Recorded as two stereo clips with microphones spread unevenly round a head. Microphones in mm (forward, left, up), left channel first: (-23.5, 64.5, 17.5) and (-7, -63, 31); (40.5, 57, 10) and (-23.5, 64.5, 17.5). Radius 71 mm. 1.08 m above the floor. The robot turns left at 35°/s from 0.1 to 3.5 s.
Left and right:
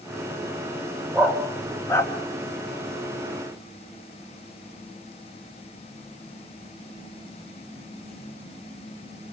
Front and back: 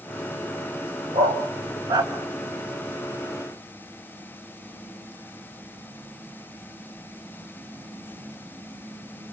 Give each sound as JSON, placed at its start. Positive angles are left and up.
{"t": 1.1, "sound": "a dog barking", "azimuth_deg": -165, "distance_m": 3.0}